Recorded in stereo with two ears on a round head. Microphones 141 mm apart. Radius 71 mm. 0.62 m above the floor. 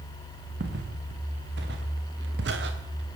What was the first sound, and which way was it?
Footsteps, 75° right (ahead or behind).